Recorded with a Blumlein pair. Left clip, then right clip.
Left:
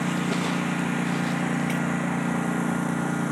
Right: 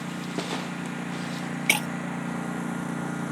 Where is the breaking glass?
35° right.